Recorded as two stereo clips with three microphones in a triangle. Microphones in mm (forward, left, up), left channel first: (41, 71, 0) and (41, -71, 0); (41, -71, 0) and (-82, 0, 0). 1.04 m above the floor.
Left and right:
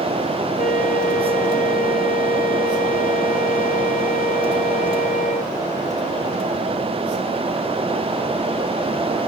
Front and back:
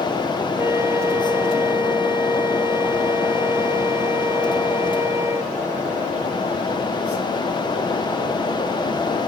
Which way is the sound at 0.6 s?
80° left.